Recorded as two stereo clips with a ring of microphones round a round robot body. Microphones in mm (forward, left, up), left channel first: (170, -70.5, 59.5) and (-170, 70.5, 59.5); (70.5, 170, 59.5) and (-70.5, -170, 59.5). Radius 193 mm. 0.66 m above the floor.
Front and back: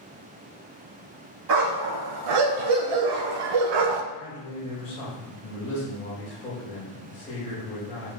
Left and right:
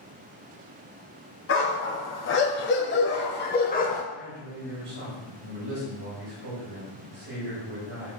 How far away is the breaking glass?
I don't hear breaking glass.